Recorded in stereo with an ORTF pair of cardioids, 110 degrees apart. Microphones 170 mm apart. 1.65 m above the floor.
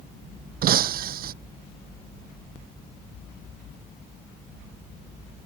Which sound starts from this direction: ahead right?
Breaking glass, at 0.6 s.